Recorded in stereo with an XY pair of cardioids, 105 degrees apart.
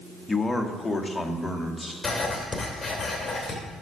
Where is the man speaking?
10° left, 1.1 m; by 1.9 s 5° left, 2 m.